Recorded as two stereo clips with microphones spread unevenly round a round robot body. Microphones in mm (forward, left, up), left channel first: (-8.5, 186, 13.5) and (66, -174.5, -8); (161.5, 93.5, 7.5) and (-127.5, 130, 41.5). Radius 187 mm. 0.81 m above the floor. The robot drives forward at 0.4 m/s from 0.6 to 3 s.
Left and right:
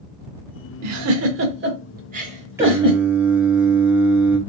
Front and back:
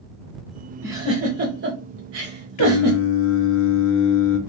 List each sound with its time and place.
0.8 s a giggle: 110° right, 0.6 m; by 3.0 s 160° right, 1.2 m
2.6 s singing: 5° left, 0.6 m; by 4.4 s 10° left, 0.5 m